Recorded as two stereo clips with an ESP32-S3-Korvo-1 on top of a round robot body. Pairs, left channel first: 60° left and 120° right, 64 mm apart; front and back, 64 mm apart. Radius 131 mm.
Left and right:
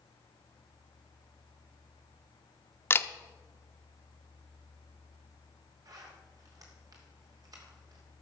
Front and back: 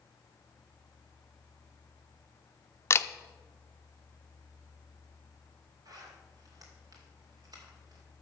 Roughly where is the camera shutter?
Ahead left.